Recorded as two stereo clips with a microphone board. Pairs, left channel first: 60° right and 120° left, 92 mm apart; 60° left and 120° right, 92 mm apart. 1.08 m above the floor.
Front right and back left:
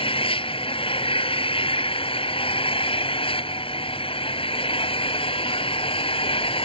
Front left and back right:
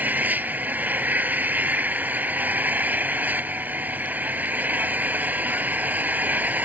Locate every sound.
0.0 s an engine running: 45° right